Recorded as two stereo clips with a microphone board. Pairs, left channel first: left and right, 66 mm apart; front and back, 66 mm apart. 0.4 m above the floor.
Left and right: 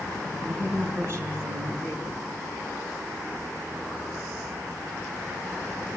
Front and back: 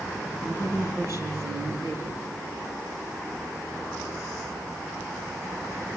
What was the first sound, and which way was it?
A woman speaking, 135° right.